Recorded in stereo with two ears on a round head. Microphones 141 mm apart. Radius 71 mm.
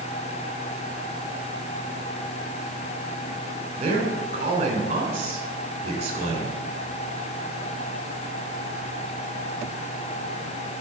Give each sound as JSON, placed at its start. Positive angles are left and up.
{"t": 3.8, "sound": "a man speaking", "side_deg": -40, "distance_m": 3.5}